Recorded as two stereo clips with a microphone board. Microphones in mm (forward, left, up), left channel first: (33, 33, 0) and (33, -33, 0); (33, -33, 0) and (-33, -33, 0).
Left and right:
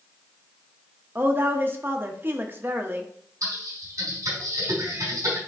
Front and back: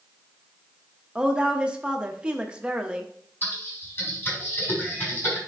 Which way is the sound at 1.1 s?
115° right.